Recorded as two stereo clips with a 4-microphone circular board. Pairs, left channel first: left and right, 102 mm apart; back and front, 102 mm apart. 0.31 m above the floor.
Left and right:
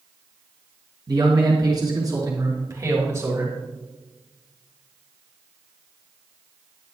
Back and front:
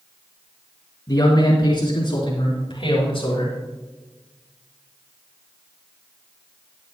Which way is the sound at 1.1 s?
130° right.